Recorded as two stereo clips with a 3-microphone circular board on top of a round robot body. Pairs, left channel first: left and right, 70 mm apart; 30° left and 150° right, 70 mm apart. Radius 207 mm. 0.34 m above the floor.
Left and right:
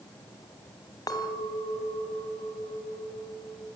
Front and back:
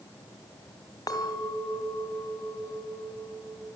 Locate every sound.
1.1 s a clink: 65° left, 2.5 m